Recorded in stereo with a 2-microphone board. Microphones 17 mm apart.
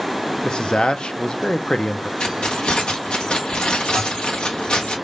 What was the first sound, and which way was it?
A man speaking, 65° left (ahead or behind).